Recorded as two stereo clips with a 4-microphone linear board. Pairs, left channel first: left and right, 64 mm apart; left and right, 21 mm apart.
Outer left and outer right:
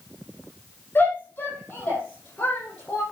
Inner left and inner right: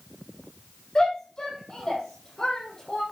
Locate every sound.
0.9 s a shout: 30° left (ahead or behind), 8.5 m; by 3.0 s 15° left (ahead or behind), 8.5 m